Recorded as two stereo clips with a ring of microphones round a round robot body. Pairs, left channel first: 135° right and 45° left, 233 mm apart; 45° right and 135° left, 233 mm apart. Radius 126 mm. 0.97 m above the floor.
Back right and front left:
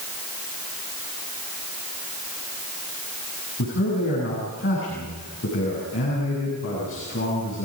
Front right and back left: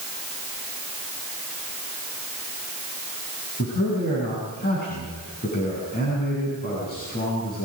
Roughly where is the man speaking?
Right.